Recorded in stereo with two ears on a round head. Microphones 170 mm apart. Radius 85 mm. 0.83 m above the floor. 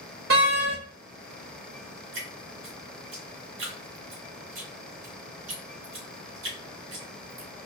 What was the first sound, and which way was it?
A door slam, 55° right (ahead or behind).